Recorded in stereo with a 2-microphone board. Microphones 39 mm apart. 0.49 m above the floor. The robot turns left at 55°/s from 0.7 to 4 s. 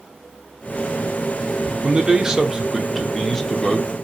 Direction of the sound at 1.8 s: 25° right (ahead or behind).